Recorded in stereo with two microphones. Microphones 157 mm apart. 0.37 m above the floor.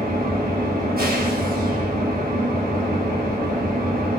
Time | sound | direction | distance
0.0 | an engine running | 75° right (ahead or behind) | 3.5 m